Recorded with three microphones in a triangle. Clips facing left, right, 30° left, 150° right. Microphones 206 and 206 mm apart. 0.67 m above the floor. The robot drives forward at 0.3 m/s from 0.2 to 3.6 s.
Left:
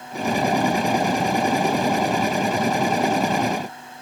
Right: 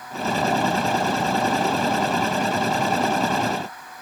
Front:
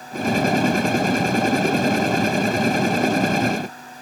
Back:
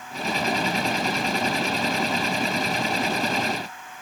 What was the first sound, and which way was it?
Only background noise.